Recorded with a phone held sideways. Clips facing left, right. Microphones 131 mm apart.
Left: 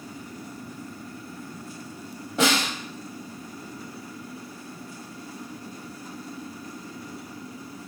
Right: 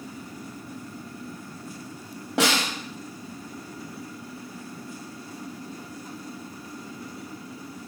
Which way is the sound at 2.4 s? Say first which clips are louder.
Even; 75° right (ahead or behind).